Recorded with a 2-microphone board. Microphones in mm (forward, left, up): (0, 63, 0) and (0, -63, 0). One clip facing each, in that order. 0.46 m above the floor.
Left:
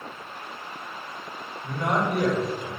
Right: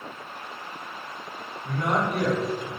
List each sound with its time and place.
1.6 s a man speaking: 35° left (ahead or behind), 1.4 m